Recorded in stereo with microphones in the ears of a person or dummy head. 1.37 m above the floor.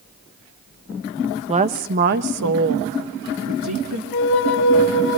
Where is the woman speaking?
25° right (ahead or behind), 1.2 m; by 4.0 s 85° right, 2.5 m.